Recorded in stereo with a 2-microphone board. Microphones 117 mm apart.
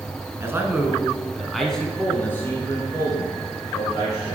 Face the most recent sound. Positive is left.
turn(degrees=40)  # may be behind; listen again after turning